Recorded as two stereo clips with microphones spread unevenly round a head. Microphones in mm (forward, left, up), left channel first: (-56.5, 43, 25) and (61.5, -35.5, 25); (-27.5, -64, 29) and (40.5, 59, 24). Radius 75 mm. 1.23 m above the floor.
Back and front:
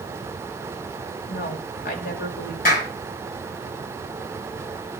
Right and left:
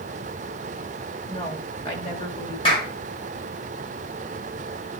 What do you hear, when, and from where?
1.3 s a woman speaking: straight behind, 2.5 m
2.6 s a clap: 175° right, 4 m